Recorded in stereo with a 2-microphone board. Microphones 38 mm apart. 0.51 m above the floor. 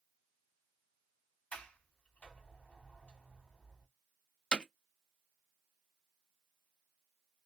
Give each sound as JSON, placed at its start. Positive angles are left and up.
{"t": 1.5, "sound": "a sliding door", "side_deg": 35, "distance_m": 1.3}
{"t": 4.5, "sound": "hammering", "side_deg": 25, "distance_m": 0.5}